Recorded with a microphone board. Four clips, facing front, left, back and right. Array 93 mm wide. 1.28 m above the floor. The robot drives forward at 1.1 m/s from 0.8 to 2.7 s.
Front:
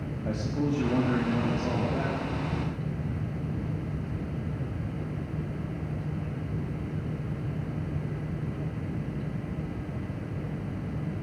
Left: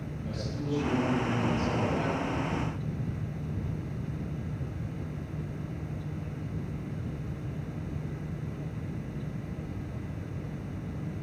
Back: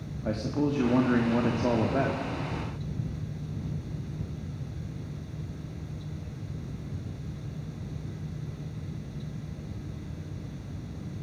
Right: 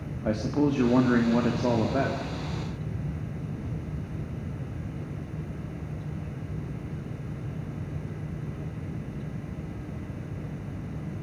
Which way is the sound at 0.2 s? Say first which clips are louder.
Right 11 dB, back 2 dB; 105° right.